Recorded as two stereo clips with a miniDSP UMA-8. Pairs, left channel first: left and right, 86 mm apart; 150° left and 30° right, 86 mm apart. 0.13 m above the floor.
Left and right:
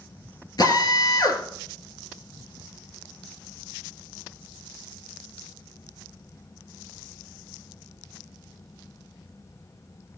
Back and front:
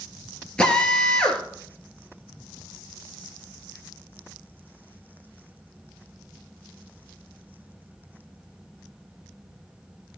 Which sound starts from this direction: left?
A drill, at 0.6 s.